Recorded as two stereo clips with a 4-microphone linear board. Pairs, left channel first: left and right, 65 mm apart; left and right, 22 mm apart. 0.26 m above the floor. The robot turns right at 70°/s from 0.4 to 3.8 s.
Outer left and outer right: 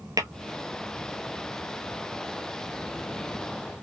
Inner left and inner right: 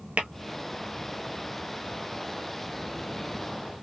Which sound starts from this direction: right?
Tapping, at 0.2 s.